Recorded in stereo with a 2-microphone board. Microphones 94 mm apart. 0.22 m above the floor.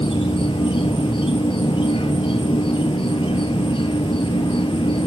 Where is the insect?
80° left, 1.0 m.